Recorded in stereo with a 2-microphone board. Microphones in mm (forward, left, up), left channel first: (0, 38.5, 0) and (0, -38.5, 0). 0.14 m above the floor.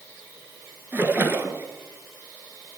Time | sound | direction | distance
0.9 | a splash | 25° right (ahead or behind) | 1.0 m